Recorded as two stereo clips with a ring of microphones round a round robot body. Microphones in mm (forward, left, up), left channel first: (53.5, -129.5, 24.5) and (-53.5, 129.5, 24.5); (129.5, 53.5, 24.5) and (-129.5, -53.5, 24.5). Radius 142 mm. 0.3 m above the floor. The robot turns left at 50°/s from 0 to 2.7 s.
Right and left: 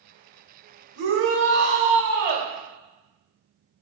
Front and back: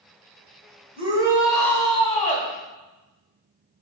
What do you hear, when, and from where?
1.0 s a shout: 140° left, 2 m; by 2.5 s 65° left, 2 m